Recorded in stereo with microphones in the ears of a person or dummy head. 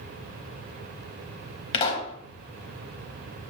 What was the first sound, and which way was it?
A pop, 40° left (ahead or behind).